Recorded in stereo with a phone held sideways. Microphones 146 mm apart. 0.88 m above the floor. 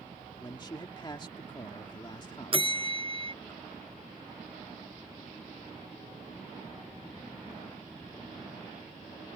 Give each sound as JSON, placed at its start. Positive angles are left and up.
{"t": 0.4, "sound": "a man speaking", "side_deg": 30}
{"t": 2.5, "sound": "a bell", "side_deg": -40}